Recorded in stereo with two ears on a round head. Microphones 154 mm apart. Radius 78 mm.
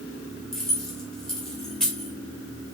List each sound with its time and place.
0.5 s keys jangling: 5° left (ahead or behind), 2.5 m